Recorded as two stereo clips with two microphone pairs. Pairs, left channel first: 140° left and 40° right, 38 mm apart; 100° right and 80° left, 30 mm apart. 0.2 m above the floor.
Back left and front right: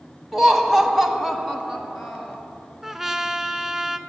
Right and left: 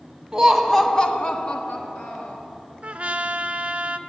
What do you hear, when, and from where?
0.3 s laughter: 20° left, 1.1 m; by 2.4 s 130° right, 2.5 m
2.8 s a trumpet: 40° left, 0.5 m